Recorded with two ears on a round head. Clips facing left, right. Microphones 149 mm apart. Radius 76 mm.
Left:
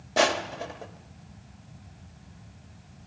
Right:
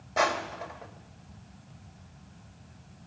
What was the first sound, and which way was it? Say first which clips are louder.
Crushing: left 4 dB; 35° left (ahead or behind).